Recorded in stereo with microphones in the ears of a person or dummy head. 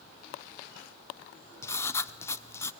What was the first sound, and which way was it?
Writing, 20° left (ahead or behind).